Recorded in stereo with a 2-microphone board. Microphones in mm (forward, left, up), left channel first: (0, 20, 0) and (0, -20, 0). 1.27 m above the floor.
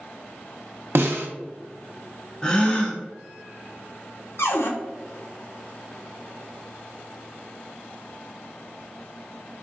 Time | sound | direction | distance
0.9 | a snare drum | 65° right (ahead or behind) | 0.6 m
2.4 | a gasp | 15° left (ahead or behind) | 0.7 m
4.4 | a cupboard door | 80° left | 0.6 m